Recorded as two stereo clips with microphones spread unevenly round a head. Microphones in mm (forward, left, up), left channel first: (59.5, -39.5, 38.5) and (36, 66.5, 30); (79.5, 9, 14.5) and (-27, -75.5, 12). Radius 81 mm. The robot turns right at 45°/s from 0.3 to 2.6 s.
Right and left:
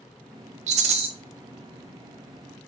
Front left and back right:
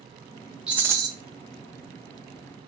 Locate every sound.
0.7 s a rattle: 135° left, 0.6 m; by 1.1 s 150° left, 0.6 m